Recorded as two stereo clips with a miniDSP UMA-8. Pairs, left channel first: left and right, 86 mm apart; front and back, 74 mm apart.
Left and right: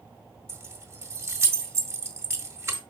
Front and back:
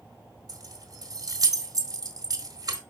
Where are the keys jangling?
150° right, 1.5 m.